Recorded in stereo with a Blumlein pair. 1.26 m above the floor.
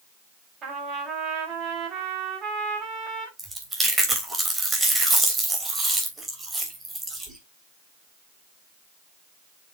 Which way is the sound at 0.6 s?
30° right.